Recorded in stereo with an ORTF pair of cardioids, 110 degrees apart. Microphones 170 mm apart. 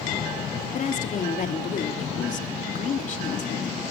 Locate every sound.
0.7 s a woman speaking: 50° left, 3 m